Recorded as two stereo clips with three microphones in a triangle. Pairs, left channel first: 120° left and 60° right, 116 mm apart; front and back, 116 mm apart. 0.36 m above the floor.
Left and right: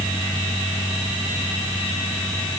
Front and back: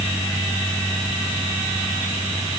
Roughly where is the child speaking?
I don't hear a child speaking.